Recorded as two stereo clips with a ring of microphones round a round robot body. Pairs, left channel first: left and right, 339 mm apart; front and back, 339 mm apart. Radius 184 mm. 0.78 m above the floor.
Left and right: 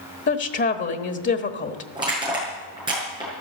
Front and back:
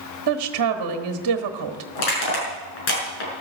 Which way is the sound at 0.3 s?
145° left.